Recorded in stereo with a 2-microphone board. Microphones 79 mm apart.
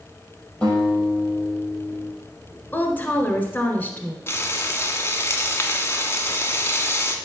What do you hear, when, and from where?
0.6 s a guitar: 20° left (ahead or behind), 5 m
2.7 s a woman speaking: 20° left (ahead or behind), 1.4 m
4.3 s frying: 30° left (ahead or behind), 1.4 m